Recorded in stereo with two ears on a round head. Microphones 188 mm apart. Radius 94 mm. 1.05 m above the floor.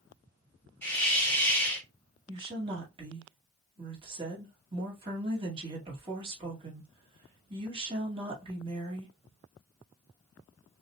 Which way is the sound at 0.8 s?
5° left (ahead or behind).